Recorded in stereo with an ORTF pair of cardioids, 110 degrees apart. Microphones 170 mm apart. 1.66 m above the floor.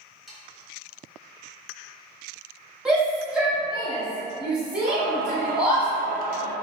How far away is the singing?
About 0.7 m.